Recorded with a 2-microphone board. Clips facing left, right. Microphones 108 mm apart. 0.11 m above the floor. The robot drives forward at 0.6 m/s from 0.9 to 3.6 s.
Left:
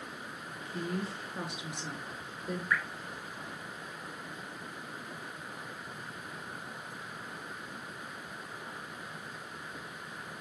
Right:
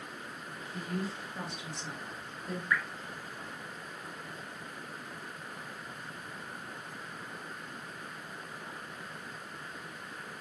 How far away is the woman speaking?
About 1.6 m.